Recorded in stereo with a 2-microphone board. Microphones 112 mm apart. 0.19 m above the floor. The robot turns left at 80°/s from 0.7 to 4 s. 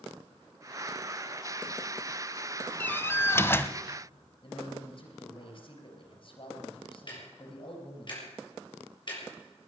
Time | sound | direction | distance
2.8 | a door slam | 15° left (ahead or behind) | 0.7 m
4.4 | a man speaking | 55° left (ahead or behind) | 4 m
7.1 | ticking | 45° left (ahead or behind) | 5.5 m